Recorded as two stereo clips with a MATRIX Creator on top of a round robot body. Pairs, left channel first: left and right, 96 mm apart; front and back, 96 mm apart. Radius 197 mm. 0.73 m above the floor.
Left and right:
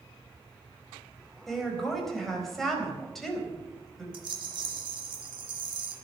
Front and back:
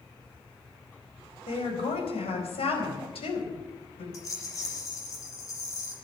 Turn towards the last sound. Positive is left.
turn(degrees=-55)